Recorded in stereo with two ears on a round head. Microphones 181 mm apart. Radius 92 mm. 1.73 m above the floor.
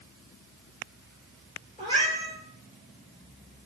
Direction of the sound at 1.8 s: 20° left (ahead or behind).